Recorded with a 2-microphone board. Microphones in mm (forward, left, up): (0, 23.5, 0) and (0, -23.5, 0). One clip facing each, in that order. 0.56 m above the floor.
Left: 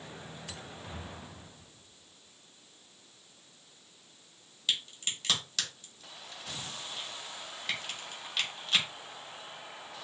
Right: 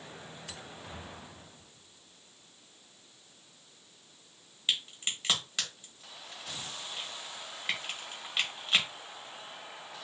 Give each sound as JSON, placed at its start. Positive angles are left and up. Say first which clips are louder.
{"t": 4.7, "sound": "a crack", "louder": "right 1 dB", "side_deg": -15, "distance_m": 1.1}